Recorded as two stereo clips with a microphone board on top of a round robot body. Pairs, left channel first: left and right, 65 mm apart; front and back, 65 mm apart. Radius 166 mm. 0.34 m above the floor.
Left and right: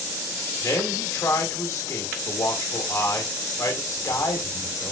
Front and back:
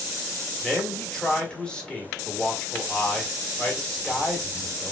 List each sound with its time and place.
0.6 s a man speaking: 75° left, 1.5 m